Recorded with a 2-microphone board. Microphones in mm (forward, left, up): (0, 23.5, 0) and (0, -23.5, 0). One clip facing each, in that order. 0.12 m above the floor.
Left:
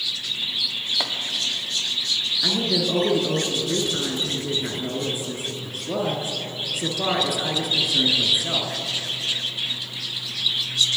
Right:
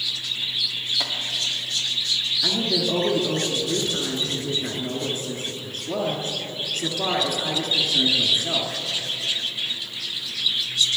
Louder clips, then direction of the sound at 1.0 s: Left 3 dB; 25° left (ahead or behind).